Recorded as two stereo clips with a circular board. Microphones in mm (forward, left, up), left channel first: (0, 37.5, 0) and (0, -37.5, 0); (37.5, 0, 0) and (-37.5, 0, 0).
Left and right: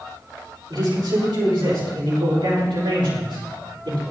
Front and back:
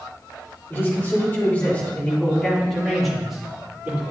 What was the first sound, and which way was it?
A man speaking, 60° right.